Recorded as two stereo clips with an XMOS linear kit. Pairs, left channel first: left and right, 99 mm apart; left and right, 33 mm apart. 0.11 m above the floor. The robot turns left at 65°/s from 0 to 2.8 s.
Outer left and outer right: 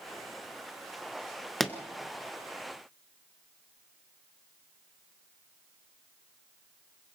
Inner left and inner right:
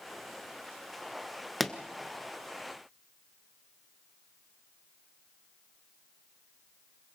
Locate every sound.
1.6 s a pop: centre (ahead or behind), 1.1 m; by 1.8 s 5° left (ahead or behind), 1.1 m